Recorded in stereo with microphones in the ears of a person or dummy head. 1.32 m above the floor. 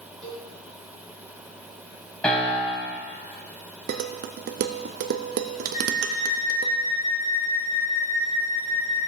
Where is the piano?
10° left (ahead or behind), 4 m.